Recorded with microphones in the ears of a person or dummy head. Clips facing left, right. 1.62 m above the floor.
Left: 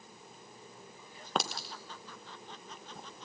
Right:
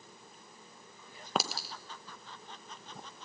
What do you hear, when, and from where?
1.4 s a clink: centre (ahead or behind), 1.1 m